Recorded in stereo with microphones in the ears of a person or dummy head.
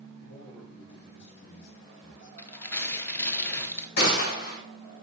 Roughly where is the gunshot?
Left.